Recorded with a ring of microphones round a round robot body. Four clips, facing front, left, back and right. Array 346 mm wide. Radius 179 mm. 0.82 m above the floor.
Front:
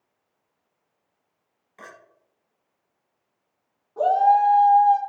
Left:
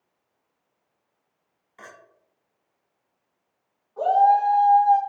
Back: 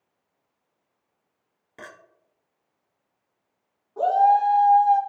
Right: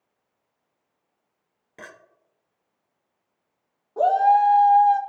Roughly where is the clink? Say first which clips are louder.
Right 2 dB, back 1 dB; behind right.